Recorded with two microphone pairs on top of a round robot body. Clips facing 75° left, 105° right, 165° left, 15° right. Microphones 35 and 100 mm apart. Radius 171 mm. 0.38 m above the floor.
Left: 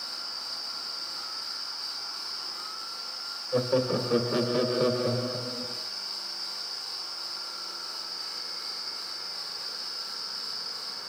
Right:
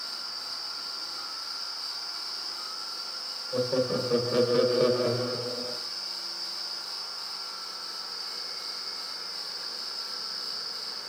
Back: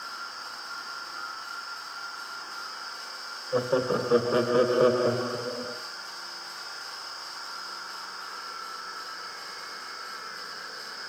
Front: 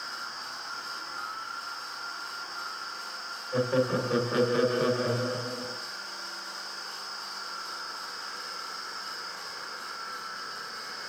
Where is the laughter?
120° left, 1.6 m; by 5.8 s 160° right, 1.7 m.